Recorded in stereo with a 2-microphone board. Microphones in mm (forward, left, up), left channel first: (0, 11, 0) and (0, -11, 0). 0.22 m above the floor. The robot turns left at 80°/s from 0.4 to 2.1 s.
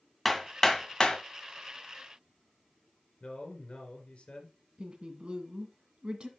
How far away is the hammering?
About 1.5 m.